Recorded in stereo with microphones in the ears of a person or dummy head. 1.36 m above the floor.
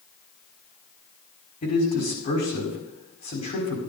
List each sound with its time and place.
1.6 s a man speaking: 45° left (ahead or behind), 5 m